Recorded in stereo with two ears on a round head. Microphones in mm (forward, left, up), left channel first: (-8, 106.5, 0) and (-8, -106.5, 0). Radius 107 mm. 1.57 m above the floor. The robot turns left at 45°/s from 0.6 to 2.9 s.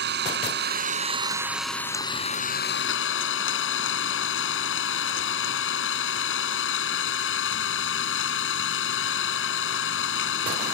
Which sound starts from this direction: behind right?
An engine running, at 0.0 s.